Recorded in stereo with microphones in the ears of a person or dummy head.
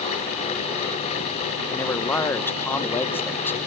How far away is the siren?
No siren in this recording.